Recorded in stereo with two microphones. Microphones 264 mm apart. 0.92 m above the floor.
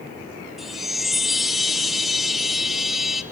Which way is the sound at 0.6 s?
Centre (ahead or behind).